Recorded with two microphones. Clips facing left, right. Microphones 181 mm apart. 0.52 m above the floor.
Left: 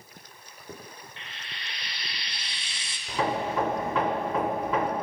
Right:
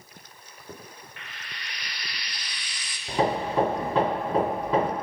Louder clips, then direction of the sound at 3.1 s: Right 3 dB; 30° right (ahead or behind).